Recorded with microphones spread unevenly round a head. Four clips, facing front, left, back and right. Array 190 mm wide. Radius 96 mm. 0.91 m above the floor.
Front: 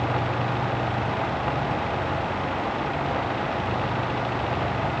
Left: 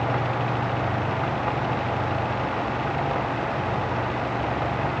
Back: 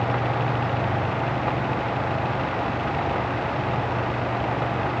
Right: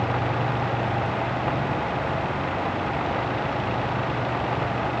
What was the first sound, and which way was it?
Only background noise.